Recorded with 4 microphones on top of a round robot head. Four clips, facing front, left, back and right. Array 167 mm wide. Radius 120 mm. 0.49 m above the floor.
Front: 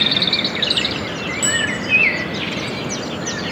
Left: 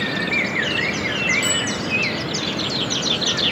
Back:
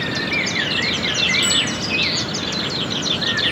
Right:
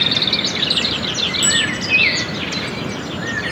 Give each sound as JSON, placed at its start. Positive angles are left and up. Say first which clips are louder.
{"t": 1.4, "sound": "a bicycle bell", "louder": "right 2 dB, front 2 dB", "azimuth_deg": -50, "distance_m": 7.5}